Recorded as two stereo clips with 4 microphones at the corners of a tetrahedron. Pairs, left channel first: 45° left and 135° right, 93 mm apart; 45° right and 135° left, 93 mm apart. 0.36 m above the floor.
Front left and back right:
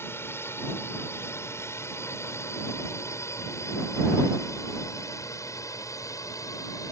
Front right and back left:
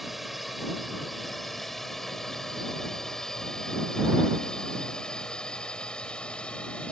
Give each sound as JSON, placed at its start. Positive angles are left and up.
{"t": 0.0, "sound": "a drone", "azimuth_deg": 45}